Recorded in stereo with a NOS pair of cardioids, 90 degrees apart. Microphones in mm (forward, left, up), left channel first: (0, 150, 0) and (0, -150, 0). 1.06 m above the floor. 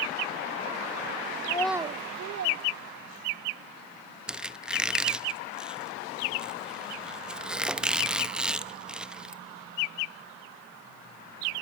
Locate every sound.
1.4 s a child speaking: 25° left, 0.7 m; by 3.5 s 75° right, 2.5 m
4.3 s a squeak: 5° right, 0.7 m